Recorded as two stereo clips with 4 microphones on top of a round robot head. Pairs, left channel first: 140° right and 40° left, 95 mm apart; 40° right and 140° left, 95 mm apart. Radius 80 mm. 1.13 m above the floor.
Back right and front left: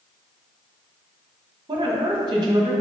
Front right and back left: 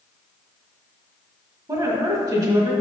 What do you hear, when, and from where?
1.7 s a woman speaking: 85° left, 1.7 m